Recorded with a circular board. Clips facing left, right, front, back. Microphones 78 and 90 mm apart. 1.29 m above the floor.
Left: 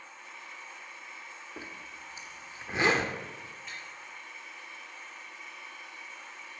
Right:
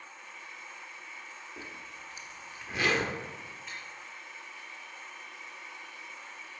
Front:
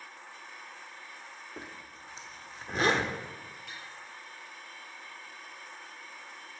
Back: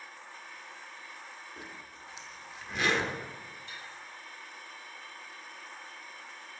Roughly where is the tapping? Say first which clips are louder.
Even, front 1 dB; ahead.